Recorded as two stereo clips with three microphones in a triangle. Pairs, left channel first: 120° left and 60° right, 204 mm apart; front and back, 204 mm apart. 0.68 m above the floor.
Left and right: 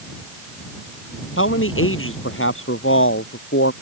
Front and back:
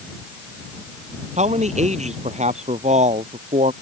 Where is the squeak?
I don't hear a squeak.